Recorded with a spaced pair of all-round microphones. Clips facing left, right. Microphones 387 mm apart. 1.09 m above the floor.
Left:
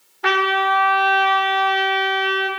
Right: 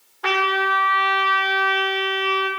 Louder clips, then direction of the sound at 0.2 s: Left 2 dB; 40° left (ahead or behind).